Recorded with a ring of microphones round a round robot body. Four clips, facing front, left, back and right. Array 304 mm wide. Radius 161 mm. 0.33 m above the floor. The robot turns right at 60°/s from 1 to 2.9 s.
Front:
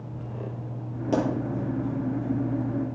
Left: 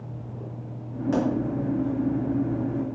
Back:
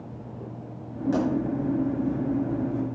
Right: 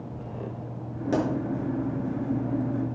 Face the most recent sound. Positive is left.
turn(degrees=70)